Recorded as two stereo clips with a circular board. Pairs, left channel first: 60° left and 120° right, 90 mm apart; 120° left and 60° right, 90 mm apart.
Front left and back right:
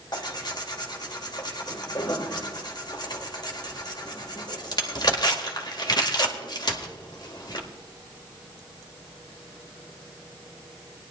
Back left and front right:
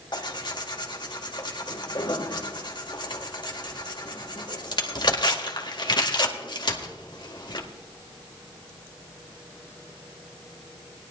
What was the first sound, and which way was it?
Tearing paper, 90° left.